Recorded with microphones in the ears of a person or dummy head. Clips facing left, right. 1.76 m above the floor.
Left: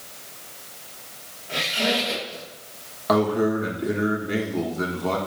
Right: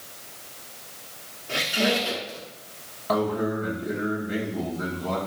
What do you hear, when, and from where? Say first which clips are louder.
1.5 s a squeak: right 1 dB; 30° right (ahead or behind), 1.5 m
3.1 s a man speaking: left 4 dB; 65° left (ahead or behind), 1.6 m